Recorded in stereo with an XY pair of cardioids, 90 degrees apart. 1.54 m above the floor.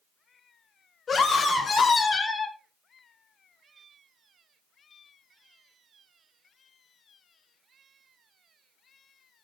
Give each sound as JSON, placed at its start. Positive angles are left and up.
{"t": 1.1, "sound": "a scream", "azimuth_deg": 45, "distance_m": 5.5}